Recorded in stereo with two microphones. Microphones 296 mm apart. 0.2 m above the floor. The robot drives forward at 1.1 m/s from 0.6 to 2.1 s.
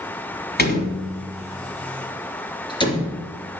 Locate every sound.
0.6 s a door slam: 30° left (ahead or behind), 1.3 m; by 3.6 s 15° left (ahead or behind), 2.5 m